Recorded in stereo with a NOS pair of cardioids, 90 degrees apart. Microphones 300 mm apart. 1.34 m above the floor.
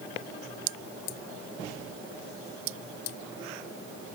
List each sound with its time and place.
Only background noise.